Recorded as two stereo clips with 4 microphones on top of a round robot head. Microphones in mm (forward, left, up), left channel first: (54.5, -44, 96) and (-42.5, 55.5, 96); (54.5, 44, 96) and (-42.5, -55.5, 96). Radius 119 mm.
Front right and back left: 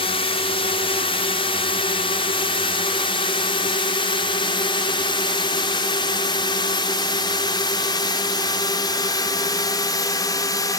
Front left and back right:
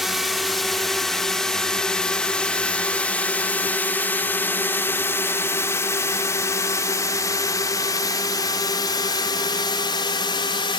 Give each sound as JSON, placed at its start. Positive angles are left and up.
{"t": 0.0, "sound": "a drone", "azimuth_deg": -45}